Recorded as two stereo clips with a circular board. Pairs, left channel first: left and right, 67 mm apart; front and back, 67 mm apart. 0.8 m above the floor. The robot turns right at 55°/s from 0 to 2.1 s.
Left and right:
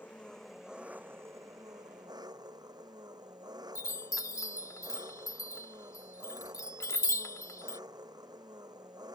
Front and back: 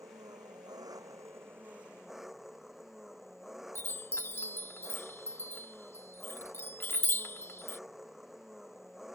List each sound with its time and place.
0.0 s an engine running: 150° left; by 9.2 s 95° right
3.8 s a chime: 50° left